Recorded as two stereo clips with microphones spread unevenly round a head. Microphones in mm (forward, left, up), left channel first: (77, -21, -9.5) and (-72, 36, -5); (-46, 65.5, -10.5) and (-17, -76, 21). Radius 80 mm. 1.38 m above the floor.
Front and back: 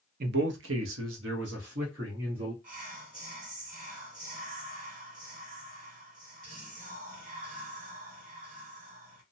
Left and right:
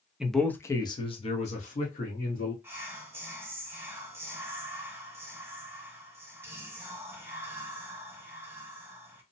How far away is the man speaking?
About 0.6 m.